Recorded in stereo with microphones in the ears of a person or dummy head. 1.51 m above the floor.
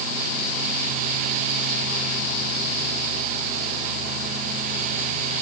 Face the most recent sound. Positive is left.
No sound to turn to.